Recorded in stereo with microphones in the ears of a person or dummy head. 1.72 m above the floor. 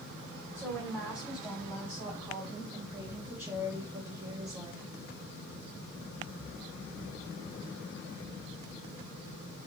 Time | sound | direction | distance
0.6 | a woman speaking | 5° right (ahead or behind) | 5.5 m